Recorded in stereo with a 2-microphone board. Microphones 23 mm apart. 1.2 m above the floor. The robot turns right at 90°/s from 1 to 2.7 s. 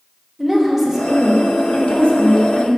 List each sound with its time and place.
0.4 s a woman speaking: 25° right, 1.1 m; by 2.7 s 130° left, 1.1 m